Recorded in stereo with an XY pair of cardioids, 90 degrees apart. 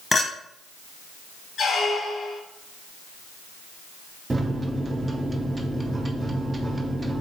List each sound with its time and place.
0.1 s a clink: 30° left, 0.9 m
1.6 s a squeak: 55° left, 1.0 m
4.3 s a microwave: 25° right, 0.6 m